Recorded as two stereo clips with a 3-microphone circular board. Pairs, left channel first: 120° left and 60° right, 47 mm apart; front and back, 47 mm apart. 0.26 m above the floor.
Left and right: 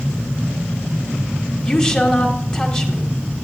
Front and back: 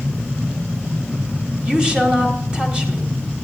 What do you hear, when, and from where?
1.6 s a woman speaking: 155° left, 1.2 m